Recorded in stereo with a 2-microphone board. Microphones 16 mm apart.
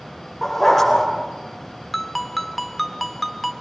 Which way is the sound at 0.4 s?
10° left (ahead or behind).